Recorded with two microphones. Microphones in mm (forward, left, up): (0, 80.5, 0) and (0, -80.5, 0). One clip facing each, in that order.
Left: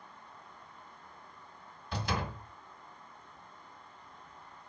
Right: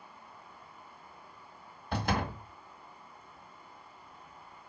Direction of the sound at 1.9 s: 55° right (ahead or behind).